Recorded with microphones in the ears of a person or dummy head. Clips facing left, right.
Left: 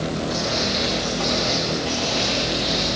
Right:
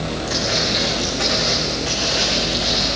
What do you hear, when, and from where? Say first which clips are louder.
0.3 s footsteps: right 1 dB; 30° right (ahead or behind), 5 m; by 2.9 s 5° right (ahead or behind), 4.5 m